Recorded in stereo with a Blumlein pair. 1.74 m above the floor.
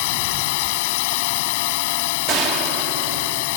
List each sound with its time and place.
0.0 s a drone: 50° left
2.3 s a gunshot: 35° right